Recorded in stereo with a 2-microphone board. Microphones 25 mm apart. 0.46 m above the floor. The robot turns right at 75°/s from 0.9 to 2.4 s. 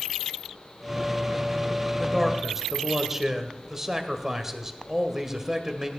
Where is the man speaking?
165° left, 1.6 m; by 5.9 s 165° right, 1.6 m.